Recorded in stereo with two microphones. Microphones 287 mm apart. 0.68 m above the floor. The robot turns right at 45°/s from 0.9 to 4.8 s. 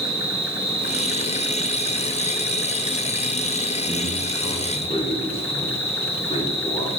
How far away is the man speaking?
About 1.9 m.